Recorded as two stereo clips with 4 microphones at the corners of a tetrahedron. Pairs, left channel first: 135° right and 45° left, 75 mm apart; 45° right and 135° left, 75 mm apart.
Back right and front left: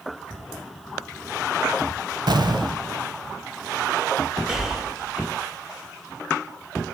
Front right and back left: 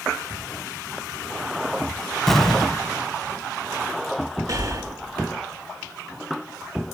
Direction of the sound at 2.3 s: 40° left.